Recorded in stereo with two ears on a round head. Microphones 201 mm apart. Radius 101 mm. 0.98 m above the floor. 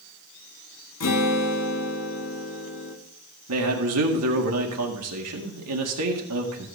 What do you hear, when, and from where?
1.0 s a guitar: 70° left (ahead or behind), 2 m
3.5 s a man speaking: 75° right (ahead or behind), 1.9 m